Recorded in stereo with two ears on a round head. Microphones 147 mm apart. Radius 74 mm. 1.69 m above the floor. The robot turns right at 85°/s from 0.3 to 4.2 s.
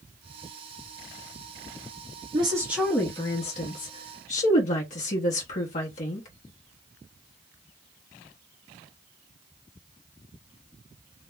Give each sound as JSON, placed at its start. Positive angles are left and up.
{"t": 2.3, "sound": "a woman speaking", "azimuth_deg": -45, "distance_m": 0.8}